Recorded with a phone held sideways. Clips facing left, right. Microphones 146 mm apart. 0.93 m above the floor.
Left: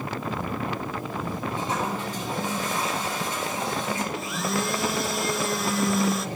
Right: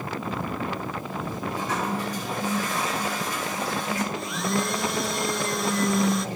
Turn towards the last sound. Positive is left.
turn(degrees=0)  # may be behind; listen again after turning